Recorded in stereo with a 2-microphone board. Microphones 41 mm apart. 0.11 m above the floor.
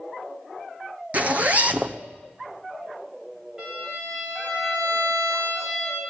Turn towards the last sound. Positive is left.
turn(degrees=-10)  # may be behind; listen again after turning